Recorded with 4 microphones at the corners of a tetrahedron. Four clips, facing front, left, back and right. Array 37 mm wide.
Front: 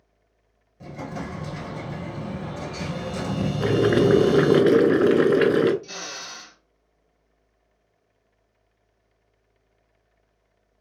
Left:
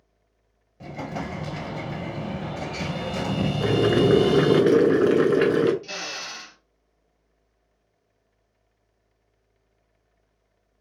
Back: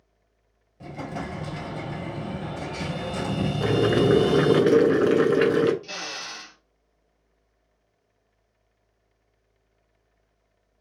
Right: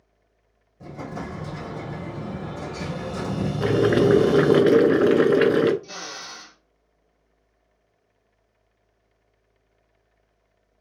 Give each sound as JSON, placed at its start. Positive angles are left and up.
{"t": 0.8, "sound": "an explosion", "azimuth_deg": 105, "distance_m": 1.4}
{"t": 3.6, "sound": "boiling", "azimuth_deg": -45, "distance_m": 0.7}
{"t": 5.8, "sound": "a drill", "azimuth_deg": 120, "distance_m": 1.4}